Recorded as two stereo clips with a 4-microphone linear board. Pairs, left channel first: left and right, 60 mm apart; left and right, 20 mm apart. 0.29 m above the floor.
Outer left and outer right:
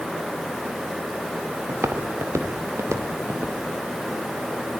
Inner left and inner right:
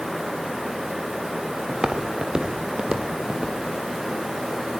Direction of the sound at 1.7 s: 40° right (ahead or behind).